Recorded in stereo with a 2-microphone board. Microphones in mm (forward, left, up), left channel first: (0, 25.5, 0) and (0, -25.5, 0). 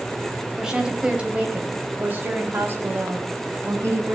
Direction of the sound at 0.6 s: 10° right (ahead or behind).